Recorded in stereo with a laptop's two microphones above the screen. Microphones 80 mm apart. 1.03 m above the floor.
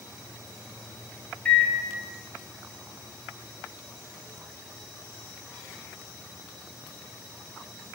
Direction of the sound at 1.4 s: 15° left (ahead or behind).